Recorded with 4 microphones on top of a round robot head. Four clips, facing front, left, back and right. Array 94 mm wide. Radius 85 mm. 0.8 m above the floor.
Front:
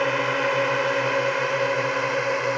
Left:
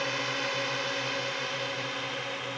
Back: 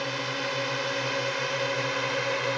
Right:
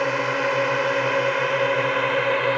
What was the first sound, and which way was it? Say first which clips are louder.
A drone: right 10 dB, front 9 dB; 50° right.